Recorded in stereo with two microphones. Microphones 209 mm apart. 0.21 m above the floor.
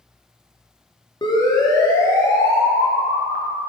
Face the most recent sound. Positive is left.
turn(degrees=5)  # may be behind; listen again after turning